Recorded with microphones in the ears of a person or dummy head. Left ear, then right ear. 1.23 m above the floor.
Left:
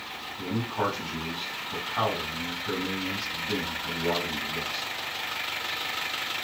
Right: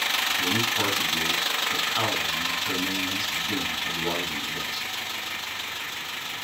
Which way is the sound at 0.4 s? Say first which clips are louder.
Right 6 dB; 15° right (ahead or behind).